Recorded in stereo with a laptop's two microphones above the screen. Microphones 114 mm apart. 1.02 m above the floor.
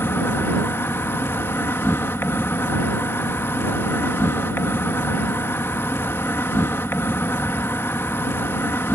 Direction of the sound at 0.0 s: 20° left (ahead or behind).